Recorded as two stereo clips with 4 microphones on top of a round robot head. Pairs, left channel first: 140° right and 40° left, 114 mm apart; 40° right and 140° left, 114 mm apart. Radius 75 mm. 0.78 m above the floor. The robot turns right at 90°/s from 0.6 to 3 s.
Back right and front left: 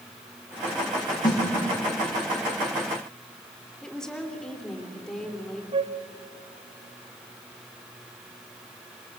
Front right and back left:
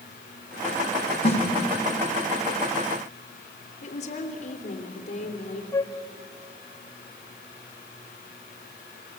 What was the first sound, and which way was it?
A snare drum, 85° right.